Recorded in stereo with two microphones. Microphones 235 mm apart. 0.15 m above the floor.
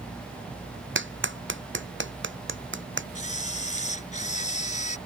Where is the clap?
55° right (ahead or behind).